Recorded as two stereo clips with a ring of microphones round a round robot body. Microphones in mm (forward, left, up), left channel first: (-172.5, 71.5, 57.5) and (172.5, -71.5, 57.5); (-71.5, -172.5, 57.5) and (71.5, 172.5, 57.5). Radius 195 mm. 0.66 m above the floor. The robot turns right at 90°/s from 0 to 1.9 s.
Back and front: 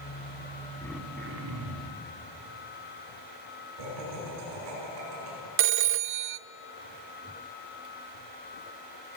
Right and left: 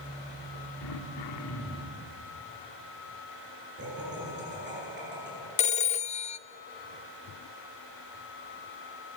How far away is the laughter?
About 8.5 m.